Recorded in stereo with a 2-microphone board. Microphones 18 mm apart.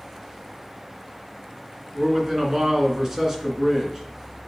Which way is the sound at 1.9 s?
25° right (ahead or behind).